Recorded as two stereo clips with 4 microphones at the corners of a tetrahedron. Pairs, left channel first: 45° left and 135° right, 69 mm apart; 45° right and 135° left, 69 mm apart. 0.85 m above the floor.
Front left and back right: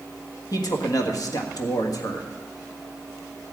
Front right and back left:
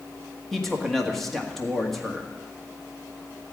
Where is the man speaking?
40° left, 1.5 m.